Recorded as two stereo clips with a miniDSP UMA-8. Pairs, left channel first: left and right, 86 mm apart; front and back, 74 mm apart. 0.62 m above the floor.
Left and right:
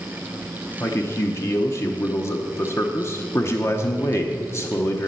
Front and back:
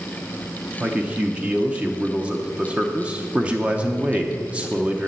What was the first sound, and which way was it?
A man speaking, 120° left.